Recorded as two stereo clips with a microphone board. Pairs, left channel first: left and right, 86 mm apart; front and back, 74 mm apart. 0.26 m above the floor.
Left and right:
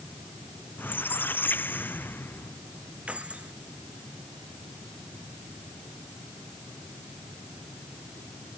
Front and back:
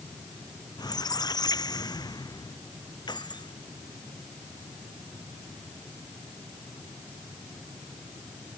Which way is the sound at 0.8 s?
25° left.